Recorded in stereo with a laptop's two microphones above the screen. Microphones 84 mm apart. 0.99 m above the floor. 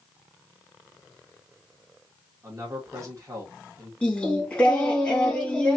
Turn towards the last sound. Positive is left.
turn(degrees=15)  # may be behind; listen again after turning